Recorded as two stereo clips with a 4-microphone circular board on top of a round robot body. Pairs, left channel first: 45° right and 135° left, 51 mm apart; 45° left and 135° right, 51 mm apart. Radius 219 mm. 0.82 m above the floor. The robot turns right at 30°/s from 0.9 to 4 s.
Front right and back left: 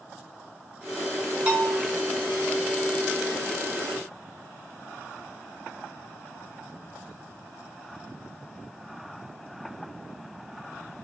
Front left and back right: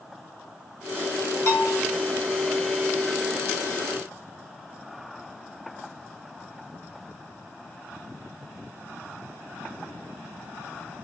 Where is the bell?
75° left, 1.7 m; by 1.8 s 85° left, 1.7 m.